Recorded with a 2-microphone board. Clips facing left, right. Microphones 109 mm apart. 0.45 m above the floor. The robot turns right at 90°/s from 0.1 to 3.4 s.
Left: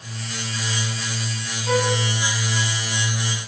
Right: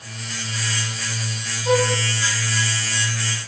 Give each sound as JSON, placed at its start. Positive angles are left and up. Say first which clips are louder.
{"t": 1.6, "sound": "a violin", "louder": "right 2 dB", "side_deg": -35, "distance_m": 5.0}